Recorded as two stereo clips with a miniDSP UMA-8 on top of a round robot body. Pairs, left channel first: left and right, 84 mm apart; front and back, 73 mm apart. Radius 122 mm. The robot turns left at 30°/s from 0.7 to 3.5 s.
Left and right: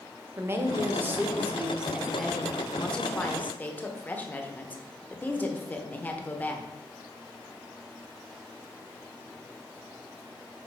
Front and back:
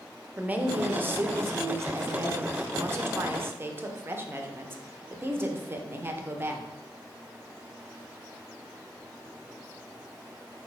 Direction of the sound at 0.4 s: 130° right.